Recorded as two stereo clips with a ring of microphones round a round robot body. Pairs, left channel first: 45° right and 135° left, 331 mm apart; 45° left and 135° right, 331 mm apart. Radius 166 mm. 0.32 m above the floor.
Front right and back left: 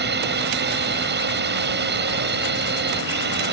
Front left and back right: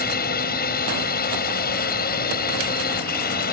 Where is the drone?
95° left.